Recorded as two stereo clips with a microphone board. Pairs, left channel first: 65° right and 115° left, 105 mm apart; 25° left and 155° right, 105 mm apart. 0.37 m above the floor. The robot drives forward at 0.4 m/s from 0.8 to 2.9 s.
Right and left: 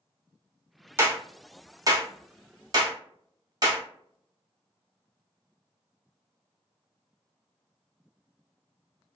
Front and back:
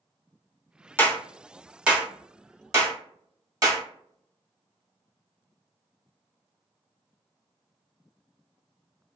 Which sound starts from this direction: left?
A clap, at 1.0 s.